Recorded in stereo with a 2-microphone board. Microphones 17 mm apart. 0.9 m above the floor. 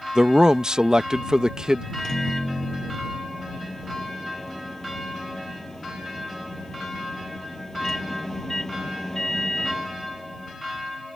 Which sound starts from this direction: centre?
A microwave, at 1.9 s.